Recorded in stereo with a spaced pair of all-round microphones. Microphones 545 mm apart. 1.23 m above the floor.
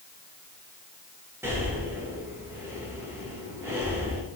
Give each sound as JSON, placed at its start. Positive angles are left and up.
{"t": 1.4, "sound": "breathing", "side_deg": -5, "distance_m": 8.5}